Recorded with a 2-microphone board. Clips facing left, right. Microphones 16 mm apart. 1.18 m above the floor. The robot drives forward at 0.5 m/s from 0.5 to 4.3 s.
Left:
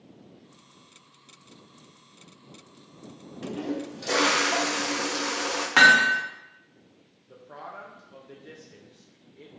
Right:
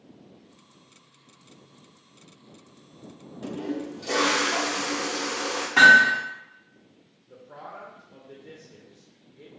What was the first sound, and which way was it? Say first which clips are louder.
A toilet flushing: even; 25° left (ahead or behind).